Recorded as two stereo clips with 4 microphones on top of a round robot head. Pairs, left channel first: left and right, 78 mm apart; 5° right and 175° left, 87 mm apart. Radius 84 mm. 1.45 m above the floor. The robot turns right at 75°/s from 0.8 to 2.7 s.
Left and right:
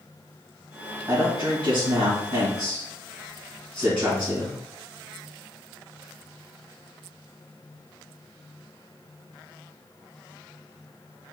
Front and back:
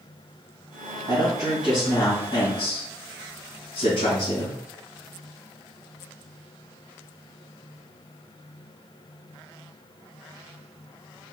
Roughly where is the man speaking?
Behind right.